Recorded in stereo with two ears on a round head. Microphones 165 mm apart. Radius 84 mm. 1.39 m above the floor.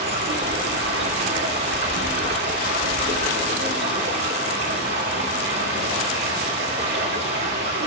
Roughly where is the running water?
Right.